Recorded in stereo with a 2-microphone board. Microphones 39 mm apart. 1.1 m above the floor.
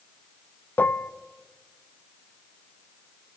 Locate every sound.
0.8 s dishes clattering: 60° left (ahead or behind), 0.5 m